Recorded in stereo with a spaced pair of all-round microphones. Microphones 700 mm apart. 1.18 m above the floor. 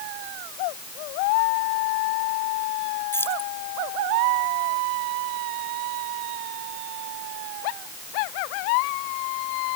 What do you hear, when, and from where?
3.1 s keys jangling: 5° left (ahead or behind)